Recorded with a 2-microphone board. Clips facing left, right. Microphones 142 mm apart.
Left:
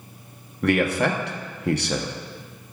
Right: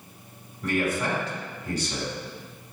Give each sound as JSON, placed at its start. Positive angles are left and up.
{"t": 0.6, "sound": "a man speaking", "side_deg": 70, "distance_m": 0.7}